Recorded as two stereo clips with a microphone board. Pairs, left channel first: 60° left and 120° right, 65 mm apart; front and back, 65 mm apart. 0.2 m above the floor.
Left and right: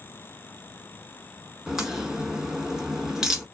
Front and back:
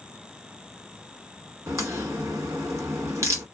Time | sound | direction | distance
1.7 | a crack | 160° left | 1.1 m